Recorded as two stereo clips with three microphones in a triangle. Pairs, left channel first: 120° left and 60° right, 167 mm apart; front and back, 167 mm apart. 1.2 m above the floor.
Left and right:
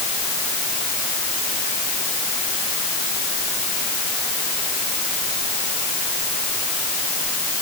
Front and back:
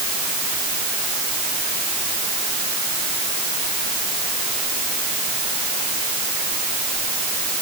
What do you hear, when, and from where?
Only background noise.